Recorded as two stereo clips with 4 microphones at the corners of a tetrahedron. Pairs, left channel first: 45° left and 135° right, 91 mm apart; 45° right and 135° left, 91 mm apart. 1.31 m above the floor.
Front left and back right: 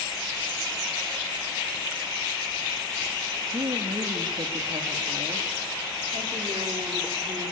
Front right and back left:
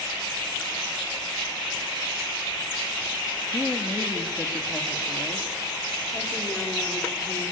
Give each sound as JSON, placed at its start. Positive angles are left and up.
{"t": 3.5, "sound": "a woman speaking", "azimuth_deg": -120, "distance_m": 2.5}